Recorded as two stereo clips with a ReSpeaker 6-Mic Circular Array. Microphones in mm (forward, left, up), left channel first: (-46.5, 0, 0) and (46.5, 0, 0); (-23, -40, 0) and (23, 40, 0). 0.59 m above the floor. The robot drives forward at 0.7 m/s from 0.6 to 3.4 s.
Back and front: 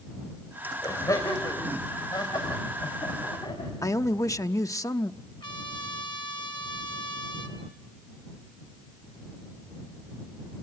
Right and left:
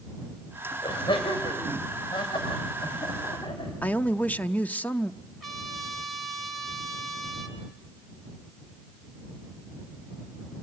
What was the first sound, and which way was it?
Laughter, 130° right.